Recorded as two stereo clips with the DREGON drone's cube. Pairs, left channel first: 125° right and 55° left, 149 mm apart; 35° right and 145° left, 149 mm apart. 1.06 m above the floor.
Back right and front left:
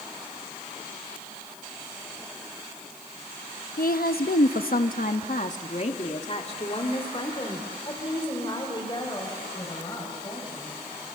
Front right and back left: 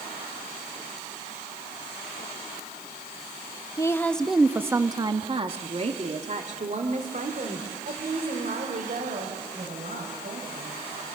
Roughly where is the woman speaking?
Right.